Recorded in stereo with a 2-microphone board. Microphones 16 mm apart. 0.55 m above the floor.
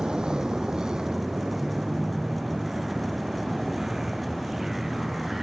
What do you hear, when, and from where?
0.0 s a vehicle: 70° right (ahead or behind); by 5.4 s 25° right (ahead or behind)